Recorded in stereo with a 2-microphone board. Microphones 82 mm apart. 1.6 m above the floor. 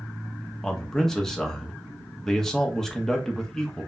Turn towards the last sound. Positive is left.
turn(degrees=5)  # may be behind; listen again after turning